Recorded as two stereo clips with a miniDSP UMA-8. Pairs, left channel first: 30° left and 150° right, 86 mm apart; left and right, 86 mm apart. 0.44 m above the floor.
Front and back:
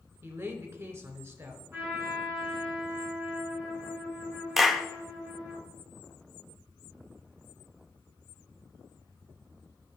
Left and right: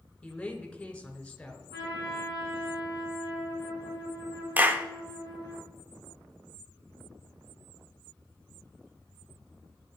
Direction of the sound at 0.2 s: 165° left.